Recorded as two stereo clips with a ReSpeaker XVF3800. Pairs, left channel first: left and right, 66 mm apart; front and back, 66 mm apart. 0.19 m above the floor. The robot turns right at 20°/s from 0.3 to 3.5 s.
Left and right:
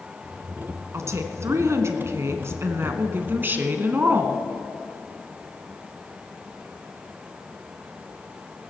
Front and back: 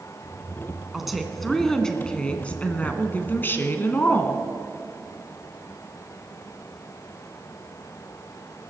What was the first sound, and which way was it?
A woman speaking, 95° right.